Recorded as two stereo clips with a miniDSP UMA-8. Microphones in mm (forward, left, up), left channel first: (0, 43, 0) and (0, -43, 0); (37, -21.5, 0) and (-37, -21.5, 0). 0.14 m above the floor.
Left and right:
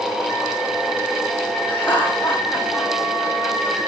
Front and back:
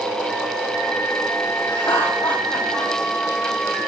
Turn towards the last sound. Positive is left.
turn(degrees=25)